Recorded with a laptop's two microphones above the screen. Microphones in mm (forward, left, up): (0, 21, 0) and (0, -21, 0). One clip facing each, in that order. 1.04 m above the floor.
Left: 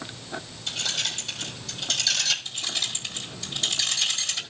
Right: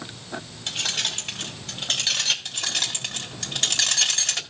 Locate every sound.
0.7 s keys jangling: 55° right (ahead or behind), 2.5 m; by 2.4 s 35° right (ahead or behind), 3 m
2.5 s keys jangling: 75° right (ahead or behind), 1.9 m